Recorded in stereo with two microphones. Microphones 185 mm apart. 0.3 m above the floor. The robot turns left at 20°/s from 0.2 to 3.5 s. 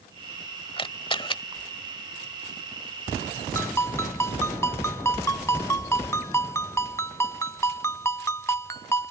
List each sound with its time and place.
0.8 s a camera shutter: 30° left (ahead or behind); by 1.4 s 25° left (ahead or behind)
3.5 s a ringtone: 15° left (ahead or behind)